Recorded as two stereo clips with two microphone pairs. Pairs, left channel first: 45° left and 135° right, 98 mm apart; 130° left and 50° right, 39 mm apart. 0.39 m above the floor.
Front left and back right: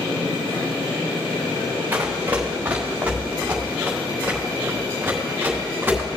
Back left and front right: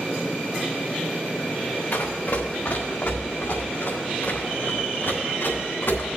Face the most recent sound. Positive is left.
turn(degrees=155)